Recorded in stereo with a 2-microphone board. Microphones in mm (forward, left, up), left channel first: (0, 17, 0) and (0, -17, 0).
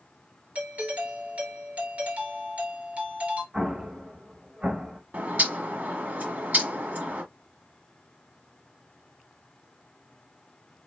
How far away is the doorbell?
About 2.5 m.